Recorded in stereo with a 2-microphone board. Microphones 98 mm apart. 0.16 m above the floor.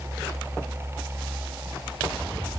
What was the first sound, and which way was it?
Only background noise.